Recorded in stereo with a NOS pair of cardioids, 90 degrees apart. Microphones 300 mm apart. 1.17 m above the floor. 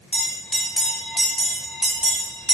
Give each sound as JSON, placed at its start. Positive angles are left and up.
{"t": 0.1, "sound": "a bell", "azimuth_deg": 0, "distance_m": 1.0}